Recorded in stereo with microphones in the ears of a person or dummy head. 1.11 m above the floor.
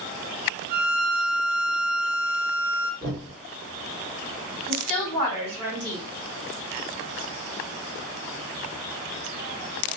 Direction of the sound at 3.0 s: 85° right.